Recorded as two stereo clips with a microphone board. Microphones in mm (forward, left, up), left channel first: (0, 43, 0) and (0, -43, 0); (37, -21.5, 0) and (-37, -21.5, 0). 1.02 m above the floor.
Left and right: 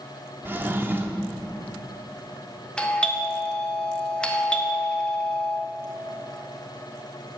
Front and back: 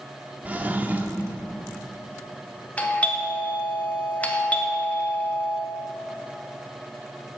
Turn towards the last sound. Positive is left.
turn(degrees=30)